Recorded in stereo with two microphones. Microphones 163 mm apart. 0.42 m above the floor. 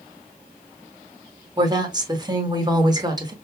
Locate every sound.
1.6 s a woman speaking: 25° right (ahead or behind), 0.8 m